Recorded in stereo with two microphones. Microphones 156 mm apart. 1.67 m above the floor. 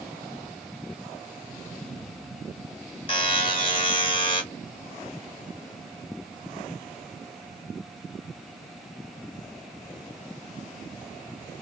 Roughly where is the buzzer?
Left.